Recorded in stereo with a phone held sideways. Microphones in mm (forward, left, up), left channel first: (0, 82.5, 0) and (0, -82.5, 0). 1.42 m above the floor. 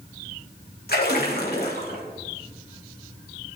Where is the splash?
75° left (ahead or behind), 3 m.